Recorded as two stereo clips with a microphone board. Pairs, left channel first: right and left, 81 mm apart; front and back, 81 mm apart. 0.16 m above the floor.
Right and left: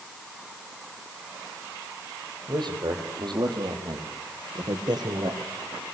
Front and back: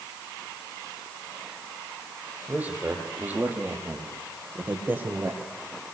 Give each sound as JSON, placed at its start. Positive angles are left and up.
{"t": 2.5, "sound": "a man speaking", "azimuth_deg": 110, "distance_m": 6.5}